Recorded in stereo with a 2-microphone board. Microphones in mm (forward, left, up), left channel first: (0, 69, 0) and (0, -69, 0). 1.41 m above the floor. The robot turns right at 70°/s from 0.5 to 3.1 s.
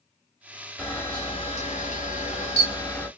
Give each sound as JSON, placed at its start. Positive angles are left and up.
{"t": 0.8, "sound": "a camera shutter", "azimuth_deg": 10, "distance_m": 1.7}